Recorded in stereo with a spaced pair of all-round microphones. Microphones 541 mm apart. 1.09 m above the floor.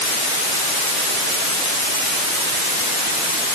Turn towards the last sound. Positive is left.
No sound to turn to.